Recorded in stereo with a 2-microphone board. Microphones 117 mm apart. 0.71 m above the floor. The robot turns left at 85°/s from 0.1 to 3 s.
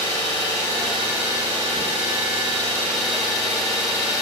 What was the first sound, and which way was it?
An engine running, 65° left.